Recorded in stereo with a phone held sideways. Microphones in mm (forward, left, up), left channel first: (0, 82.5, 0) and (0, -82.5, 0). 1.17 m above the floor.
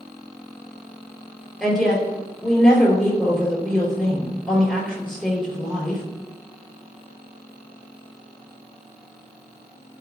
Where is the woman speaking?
5° left (ahead or behind), 3.5 m.